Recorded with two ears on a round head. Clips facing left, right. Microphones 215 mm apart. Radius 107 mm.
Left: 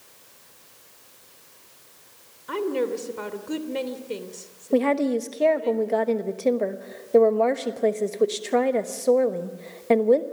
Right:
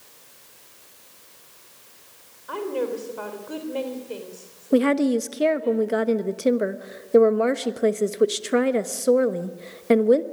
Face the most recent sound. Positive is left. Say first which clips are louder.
# right 2 dB
turn(degrees=-20)  # may be behind; listen again after turning